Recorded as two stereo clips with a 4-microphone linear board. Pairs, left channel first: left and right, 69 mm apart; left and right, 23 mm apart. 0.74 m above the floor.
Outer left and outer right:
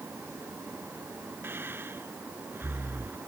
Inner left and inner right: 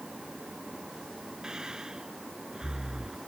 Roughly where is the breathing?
Right.